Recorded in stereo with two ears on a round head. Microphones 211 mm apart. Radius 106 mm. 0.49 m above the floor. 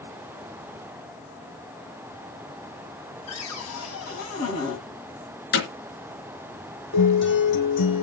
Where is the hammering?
45° left (ahead or behind), 3.5 m.